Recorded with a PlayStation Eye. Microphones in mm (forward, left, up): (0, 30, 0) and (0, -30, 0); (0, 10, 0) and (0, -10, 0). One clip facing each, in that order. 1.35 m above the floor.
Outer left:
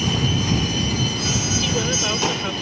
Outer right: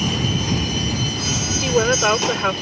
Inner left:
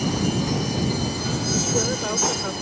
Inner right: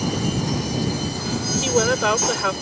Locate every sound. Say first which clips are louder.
1.6 s a woman speaking: outer right 10 dB, inner right 5 dB; 50° right (ahead or behind)